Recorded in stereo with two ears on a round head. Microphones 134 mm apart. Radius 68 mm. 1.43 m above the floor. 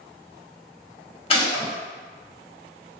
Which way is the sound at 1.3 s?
40° left (ahead or behind).